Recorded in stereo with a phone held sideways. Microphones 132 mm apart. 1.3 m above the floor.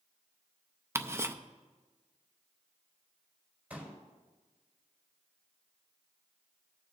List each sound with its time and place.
0.9 s ticking: 20° right (ahead or behind), 0.5 m
3.7 s a pop: 15° right (ahead or behind), 4.5 m